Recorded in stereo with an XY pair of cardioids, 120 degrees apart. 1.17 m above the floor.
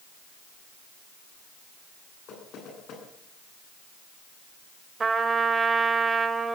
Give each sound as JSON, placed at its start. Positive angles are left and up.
{"t": 2.3, "sound": "knocking", "azimuth_deg": 60, "distance_m": 9.0}
{"t": 5.0, "sound": "a trumpet", "azimuth_deg": -30, "distance_m": 2.5}